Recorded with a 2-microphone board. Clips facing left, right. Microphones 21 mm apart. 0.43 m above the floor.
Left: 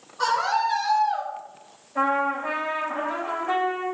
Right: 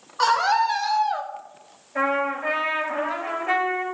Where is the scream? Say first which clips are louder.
Right 3 dB; 55° right (ahead or behind), 3 m; by 1.3 s 40° right (ahead or behind), 1.8 m.